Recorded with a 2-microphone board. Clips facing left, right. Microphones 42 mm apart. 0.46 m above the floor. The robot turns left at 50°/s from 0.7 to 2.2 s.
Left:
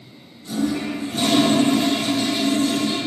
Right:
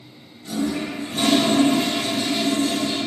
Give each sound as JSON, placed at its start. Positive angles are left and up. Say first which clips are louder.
{"t": 0.5, "sound": "a toilet flushing", "louder": "left 2 dB", "azimuth_deg": -45, "distance_m": 1.0}